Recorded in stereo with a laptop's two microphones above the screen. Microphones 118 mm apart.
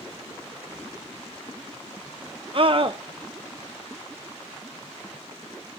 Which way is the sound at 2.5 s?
50° right (ahead or behind).